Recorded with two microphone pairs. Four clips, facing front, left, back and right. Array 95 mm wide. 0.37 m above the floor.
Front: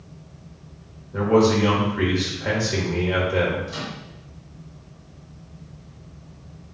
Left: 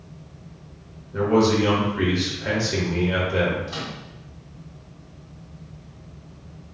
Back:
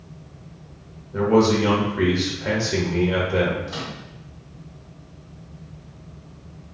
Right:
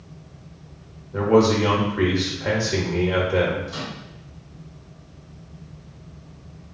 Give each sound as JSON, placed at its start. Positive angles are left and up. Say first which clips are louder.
{"t": 1.1, "sound": "a man speaking", "louder": "right 2 dB, even", "azimuth_deg": -105, "distance_m": 0.8}
{"t": 3.7, "sound": "a microwave", "louder": "even, even", "azimuth_deg": 130, "distance_m": 1.6}